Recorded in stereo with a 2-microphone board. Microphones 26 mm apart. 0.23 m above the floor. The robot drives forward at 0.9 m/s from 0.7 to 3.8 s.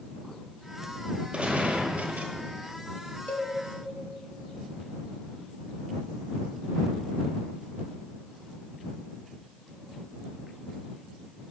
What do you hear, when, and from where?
1.3 s a gunshot: 50° right (ahead or behind), 1.2 m; by 2.3 s 80° right, 0.9 m
3.3 s a cowbell: 70° left (ahead or behind), 0.9 m